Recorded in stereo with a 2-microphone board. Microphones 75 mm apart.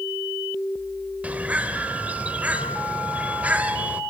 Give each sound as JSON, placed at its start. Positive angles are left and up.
{"t": 1.2, "sound": "a bird", "side_deg": -20, "distance_m": 1.4}